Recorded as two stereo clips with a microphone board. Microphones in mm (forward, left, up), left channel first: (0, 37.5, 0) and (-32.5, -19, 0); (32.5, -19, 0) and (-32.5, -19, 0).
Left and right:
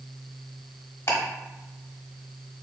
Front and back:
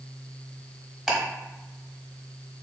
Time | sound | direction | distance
1.1 | ticking | 95° left | 1.0 m